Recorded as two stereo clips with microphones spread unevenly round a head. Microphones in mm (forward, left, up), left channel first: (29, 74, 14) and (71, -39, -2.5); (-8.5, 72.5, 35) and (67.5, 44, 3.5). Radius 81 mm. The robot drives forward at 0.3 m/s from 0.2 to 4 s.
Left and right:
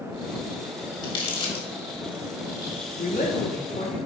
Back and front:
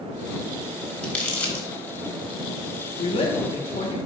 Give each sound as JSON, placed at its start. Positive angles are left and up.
{"t": 1.0, "sound": "crumpling", "azimuth_deg": 120, "distance_m": 1.3}
{"t": 3.0, "sound": "a woman speaking", "azimuth_deg": 165, "distance_m": 0.7}